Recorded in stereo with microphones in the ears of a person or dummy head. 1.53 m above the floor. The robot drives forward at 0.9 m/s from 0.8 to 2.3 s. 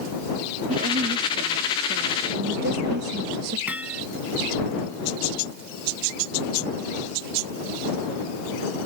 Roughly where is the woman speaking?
Right.